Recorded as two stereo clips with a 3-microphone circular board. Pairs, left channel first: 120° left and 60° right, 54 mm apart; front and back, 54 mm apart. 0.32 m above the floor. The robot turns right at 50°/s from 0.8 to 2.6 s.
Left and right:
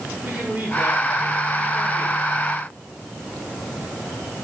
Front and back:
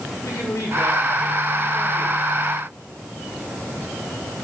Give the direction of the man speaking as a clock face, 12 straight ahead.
12 o'clock.